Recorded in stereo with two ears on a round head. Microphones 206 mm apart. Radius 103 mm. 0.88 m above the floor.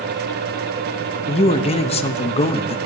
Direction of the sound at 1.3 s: 25° left (ahead or behind).